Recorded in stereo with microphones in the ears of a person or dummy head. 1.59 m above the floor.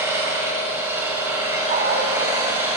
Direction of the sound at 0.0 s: 15° right (ahead or behind).